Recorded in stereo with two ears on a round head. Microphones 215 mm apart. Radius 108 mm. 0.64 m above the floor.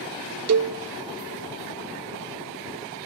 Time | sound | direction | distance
0.5 | a cowbell | 65° right (ahead or behind) | 0.5 m